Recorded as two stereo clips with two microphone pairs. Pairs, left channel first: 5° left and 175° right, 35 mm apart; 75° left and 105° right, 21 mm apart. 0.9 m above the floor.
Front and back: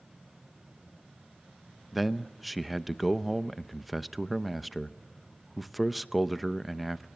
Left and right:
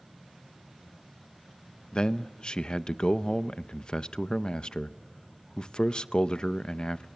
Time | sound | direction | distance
1.9 | a man speaking | 95° left | 0.8 m